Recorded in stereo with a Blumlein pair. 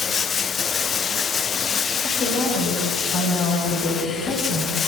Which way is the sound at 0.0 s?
20° left.